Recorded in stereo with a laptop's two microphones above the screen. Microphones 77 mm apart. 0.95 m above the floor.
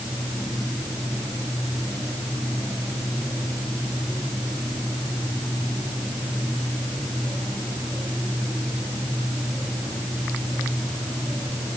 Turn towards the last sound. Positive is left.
No sound to turn to.